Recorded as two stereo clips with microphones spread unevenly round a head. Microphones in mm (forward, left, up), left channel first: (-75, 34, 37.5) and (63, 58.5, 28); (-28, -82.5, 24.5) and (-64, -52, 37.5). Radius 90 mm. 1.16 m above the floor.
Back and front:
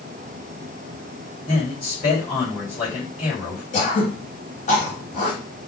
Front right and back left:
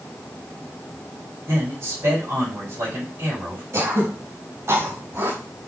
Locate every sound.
1.5 s a man speaking: 145° left, 4 m
3.7 s throat clearing: 155° left, 3 m